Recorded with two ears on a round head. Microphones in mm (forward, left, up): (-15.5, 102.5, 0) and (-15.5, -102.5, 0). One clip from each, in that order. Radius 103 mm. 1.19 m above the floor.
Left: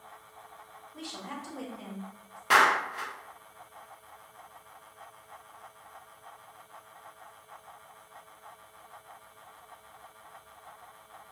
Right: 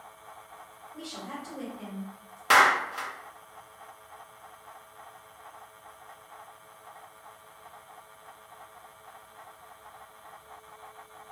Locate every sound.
0.9 s a woman speaking: 65° left (ahead or behind), 1.5 m; by 2.4 s 10° left (ahead or behind), 0.6 m
2.5 s a clap: 25° right (ahead or behind), 0.7 m